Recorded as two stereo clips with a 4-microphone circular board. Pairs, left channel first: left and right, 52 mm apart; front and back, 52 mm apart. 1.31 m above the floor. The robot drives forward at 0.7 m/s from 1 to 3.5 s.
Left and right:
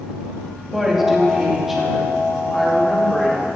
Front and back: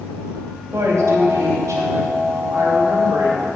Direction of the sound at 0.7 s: 175° right.